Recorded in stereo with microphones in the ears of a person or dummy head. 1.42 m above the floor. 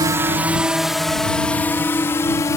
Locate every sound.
0.0 s a drone: 20° right (ahead or behind); by 2.6 s 15° left (ahead or behind)